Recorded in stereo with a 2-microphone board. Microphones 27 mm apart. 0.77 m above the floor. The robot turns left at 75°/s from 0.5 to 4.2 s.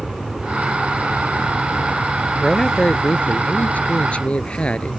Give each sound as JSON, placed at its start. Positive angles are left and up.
{"t": 0.0, "sound": "an aircraft", "side_deg": -35}
{"t": 2.4, "sound": "a man speaking", "azimuth_deg": 180}